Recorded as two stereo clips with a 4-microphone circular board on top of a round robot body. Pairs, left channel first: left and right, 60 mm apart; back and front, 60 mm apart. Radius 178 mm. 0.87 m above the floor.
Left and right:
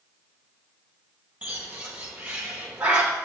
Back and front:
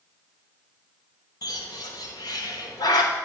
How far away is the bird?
About 0.8 m.